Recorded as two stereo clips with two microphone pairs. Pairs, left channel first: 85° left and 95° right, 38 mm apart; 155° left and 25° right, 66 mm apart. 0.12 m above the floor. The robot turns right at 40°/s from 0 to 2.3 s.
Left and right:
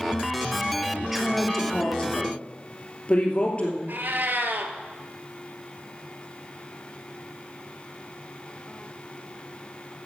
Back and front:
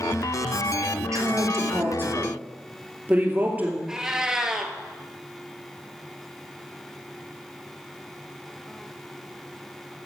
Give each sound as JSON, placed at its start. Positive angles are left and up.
{"t": 1.0, "sound": "a woman speaking", "azimuth_deg": -15, "distance_m": 2.5}
{"t": 3.9, "sound": "a cat meowing", "azimuth_deg": -100, "distance_m": 1.3}